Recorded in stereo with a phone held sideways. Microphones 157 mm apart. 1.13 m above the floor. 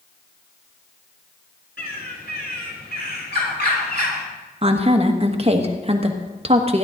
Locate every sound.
1.8 s a bird: 80° left, 2.5 m
4.6 s a woman speaking: 40° right (ahead or behind), 1.3 m